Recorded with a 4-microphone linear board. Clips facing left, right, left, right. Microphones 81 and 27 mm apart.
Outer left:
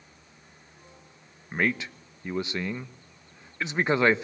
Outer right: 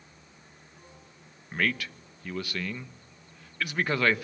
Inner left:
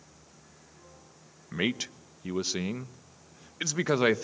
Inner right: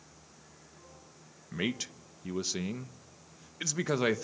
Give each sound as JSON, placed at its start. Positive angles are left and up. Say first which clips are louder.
{"t": 1.5, "sound": "a man speaking", "louder": "outer left 2 dB, inner left 4 dB", "side_deg": 20, "distance_m": 0.9}